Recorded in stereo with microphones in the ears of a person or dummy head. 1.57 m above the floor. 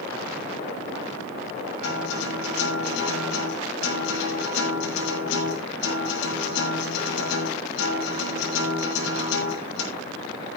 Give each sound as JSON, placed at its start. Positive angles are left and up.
{"t": 1.8, "sound": "a guitar", "side_deg": 75, "distance_m": 8.5}